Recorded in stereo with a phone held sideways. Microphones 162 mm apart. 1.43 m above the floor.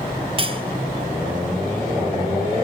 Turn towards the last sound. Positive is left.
turn(degrees=-35)  # may be behind; listen again after turning